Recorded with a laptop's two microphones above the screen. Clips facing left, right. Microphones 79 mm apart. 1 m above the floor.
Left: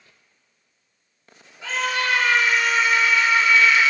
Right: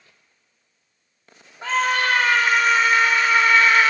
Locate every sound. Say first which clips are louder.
1.6 s a scream: right 4 dB; 45° right (ahead or behind), 3 m; by 3.9 s 50° right (ahead or behind), 1.4 m